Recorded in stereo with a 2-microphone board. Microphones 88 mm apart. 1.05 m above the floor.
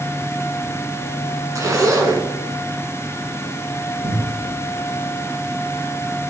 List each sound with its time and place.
1.6 s a zipper: 40° right (ahead or behind), 2.0 m
4.0 s a cupboard door: 35° right (ahead or behind), 5 m